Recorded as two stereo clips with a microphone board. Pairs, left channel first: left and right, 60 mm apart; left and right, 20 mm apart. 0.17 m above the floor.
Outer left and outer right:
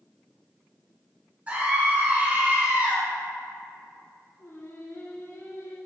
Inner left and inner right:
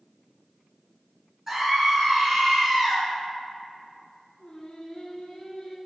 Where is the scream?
25° right (ahead or behind), 1.9 m.